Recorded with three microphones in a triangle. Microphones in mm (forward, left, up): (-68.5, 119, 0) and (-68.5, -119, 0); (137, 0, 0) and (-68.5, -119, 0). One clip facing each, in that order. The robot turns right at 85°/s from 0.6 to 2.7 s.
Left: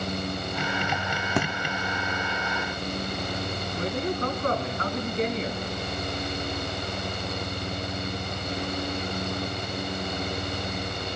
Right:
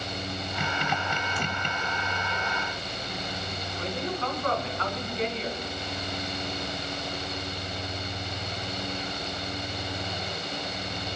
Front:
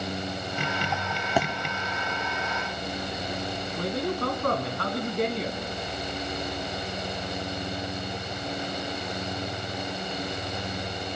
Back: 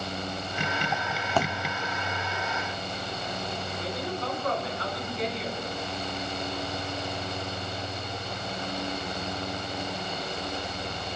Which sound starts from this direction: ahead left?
A man speaking, at 3.8 s.